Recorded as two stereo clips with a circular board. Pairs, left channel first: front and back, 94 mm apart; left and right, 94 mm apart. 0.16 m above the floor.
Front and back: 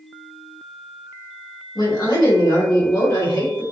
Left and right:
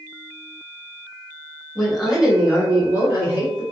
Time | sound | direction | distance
1.8 | a woman speaking | straight ahead | 2.0 m